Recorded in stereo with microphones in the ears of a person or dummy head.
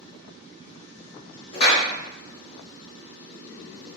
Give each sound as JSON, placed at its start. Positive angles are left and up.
{"t": 1.5, "sound": "a clap", "side_deg": 55, "distance_m": 1.9}